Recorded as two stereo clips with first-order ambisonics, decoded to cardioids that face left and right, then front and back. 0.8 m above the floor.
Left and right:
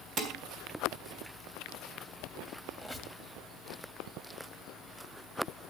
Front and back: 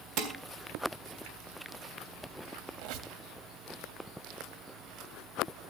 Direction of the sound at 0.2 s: 140° right.